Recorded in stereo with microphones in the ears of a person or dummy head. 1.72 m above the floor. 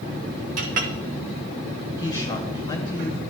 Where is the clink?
50° right (ahead or behind), 0.9 m.